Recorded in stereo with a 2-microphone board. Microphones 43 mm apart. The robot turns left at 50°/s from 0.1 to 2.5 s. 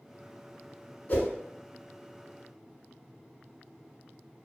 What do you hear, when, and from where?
1.1 s a whoosh: 35° left (ahead or behind), 0.8 m